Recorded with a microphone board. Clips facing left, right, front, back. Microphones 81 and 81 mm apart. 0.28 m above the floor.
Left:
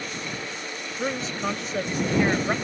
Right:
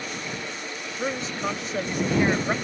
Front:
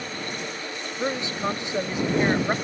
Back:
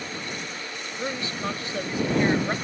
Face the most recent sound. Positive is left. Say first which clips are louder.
# even, front 3 dB
turn(degrees=-5)